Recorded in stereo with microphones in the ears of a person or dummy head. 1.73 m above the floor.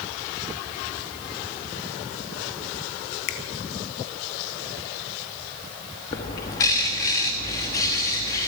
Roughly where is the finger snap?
Left.